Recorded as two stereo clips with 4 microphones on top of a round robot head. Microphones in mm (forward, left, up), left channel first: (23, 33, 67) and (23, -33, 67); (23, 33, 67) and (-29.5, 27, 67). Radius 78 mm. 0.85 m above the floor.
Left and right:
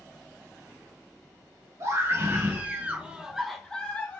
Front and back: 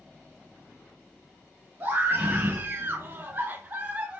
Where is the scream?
125° right, 1.2 m; by 4.2 s 135° left, 0.8 m.